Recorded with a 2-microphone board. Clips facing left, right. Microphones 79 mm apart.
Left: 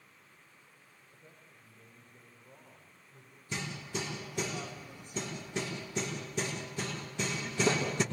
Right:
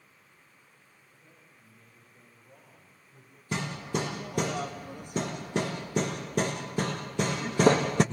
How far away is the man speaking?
About 7 m.